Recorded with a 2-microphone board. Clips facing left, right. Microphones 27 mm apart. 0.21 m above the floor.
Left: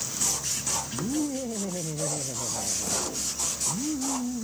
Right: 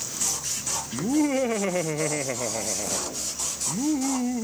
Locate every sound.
0.9 s laughter: 65° right (ahead or behind)